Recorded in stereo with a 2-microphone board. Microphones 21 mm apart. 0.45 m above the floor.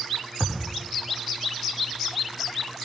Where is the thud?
50° left (ahead or behind), 8.5 m.